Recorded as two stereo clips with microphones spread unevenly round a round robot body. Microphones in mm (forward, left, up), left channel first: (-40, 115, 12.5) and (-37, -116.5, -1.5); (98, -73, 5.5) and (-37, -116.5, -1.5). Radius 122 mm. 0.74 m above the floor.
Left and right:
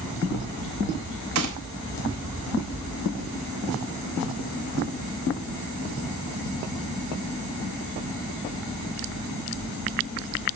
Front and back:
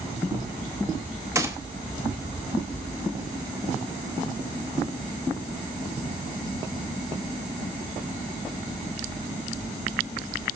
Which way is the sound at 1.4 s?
95° right.